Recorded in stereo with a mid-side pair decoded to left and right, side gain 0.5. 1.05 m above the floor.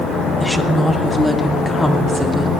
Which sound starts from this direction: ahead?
A woman speaking, at 0.4 s.